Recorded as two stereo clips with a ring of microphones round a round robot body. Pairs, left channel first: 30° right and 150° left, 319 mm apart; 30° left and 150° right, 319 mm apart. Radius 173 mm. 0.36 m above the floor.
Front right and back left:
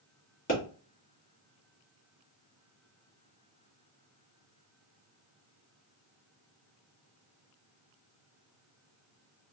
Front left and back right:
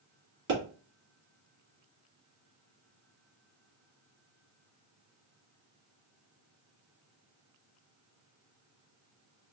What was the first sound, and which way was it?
A pop, 95° right.